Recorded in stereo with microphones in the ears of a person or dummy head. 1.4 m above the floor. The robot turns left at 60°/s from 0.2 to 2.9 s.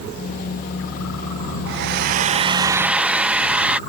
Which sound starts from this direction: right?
A hair dryer, at 1.7 s.